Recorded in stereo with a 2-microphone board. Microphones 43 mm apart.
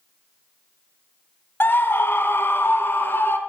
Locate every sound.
1.6 s a scream: 55° left (ahead or behind), 2.5 m; by 3.4 s 60° left (ahead or behind), 3.5 m